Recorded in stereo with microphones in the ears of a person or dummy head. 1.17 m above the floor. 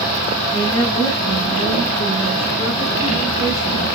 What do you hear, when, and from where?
0.5 s a woman speaking: 20° left (ahead or behind), 7.5 m; by 3.9 s 35° left (ahead or behind), 7.5 m